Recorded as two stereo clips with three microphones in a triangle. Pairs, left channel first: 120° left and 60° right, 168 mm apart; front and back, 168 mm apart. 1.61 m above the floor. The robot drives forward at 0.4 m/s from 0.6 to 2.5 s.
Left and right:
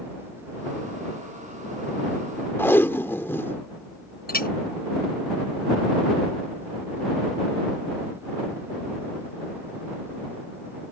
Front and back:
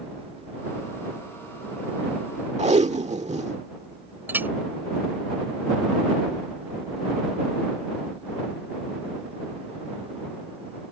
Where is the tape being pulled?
170° right.